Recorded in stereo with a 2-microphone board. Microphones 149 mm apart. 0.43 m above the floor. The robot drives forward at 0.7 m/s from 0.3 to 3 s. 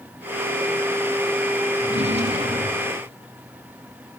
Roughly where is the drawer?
Right.